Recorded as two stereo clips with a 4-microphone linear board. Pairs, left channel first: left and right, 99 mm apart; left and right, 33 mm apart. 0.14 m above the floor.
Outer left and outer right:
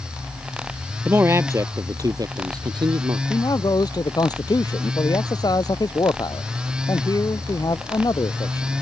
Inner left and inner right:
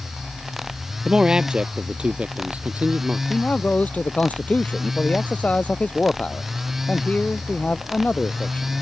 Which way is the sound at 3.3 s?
45° left (ahead or behind).